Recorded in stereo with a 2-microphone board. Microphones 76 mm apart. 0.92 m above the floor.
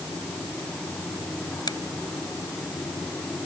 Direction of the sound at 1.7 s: 65° left (ahead or behind).